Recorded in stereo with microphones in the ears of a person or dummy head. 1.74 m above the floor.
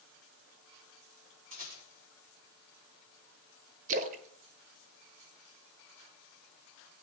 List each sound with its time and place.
1.5 s a rattle: 40° right (ahead or behind), 5 m
3.9 s a splash: 40° right (ahead or behind), 1.0 m